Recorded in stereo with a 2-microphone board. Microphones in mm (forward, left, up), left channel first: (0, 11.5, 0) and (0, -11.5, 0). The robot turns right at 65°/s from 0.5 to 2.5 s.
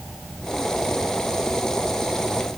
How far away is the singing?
I don't hear singing.